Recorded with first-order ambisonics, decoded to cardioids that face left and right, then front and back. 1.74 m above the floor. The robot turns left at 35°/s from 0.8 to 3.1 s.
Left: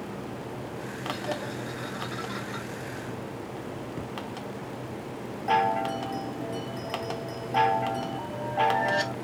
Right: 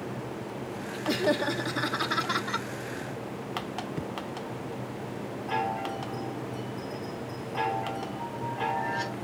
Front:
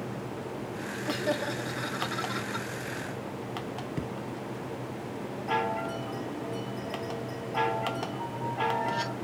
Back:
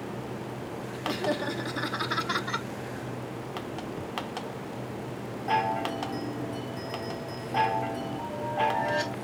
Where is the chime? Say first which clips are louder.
Left 6 dB, back 3 dB; 115° left, 2.5 m.